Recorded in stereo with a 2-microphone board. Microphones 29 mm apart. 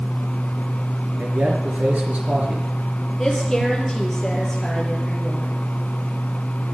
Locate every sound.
1.2 s a man speaking: 60° right (ahead or behind), 4.5 m
3.2 s a woman speaking: 15° left (ahead or behind), 6.5 m